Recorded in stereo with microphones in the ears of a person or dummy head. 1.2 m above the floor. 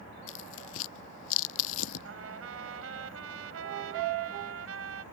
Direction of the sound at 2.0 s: 85° right.